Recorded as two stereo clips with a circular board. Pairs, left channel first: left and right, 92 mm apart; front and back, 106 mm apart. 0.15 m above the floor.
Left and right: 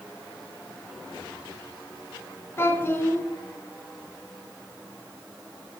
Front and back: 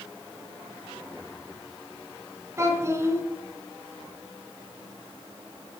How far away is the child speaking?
About 1.5 m.